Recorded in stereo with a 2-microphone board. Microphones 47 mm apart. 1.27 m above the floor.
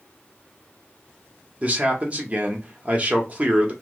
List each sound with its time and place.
1.6 s a man speaking: 30° right (ahead or behind), 0.9 m